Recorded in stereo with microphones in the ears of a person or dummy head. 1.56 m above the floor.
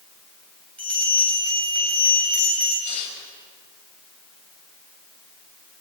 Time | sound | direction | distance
0.8 | a bell | 5° left (ahead or behind) | 9 m
2.8 | tearing paper | 45° left (ahead or behind) | 5.5 m